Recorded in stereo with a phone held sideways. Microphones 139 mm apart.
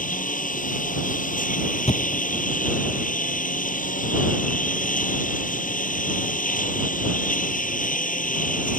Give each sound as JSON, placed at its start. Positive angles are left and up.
{"t": 0.0, "sound": "a lawn mower", "side_deg": 80}
{"t": 1.9, "sound": "a thud", "side_deg": 50}